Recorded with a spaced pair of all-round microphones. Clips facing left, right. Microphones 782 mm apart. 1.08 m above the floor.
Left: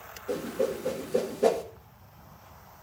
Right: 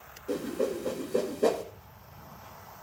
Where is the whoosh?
25° left (ahead or behind), 1.8 m.